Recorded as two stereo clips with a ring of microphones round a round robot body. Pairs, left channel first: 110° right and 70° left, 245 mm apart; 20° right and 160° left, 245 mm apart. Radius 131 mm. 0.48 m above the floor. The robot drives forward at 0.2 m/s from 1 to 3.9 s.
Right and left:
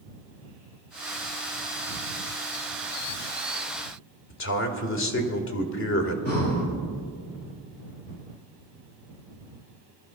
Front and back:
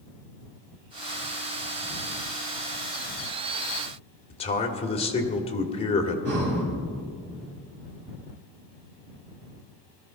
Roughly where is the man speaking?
Right.